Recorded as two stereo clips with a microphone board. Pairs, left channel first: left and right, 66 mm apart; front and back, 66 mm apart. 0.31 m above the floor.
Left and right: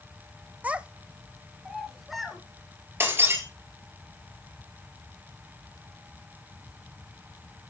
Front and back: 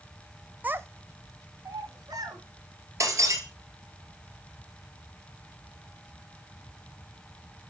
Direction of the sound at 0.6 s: 135° right.